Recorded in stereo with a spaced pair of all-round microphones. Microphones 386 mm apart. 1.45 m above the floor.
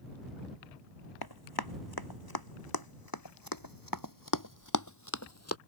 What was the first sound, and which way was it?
Running footsteps, 75° left (ahead or behind).